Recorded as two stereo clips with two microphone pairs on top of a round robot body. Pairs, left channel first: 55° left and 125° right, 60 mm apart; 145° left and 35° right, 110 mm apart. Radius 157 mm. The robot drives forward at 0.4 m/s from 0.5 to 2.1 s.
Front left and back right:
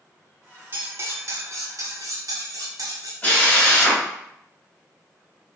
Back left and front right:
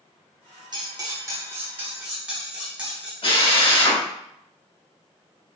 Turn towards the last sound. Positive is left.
turn(degrees=120)